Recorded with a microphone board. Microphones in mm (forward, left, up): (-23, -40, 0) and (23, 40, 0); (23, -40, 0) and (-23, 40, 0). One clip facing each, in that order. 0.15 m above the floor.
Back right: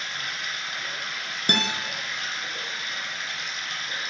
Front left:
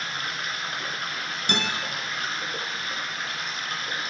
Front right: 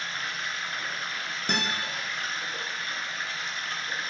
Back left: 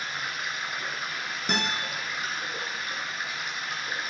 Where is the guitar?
150° right, 2 m.